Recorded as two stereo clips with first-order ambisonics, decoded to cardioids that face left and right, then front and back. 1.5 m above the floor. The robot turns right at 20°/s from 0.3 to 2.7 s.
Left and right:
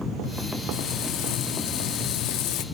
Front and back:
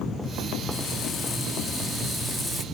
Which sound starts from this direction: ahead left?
Frying, at 0.7 s.